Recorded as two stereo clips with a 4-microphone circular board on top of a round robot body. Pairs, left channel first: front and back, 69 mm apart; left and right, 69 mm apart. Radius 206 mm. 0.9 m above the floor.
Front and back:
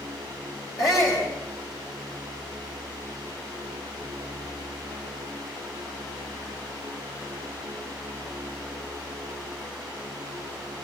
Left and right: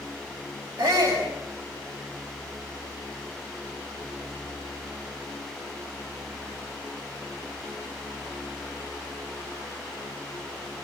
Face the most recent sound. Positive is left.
turn(degrees=-40)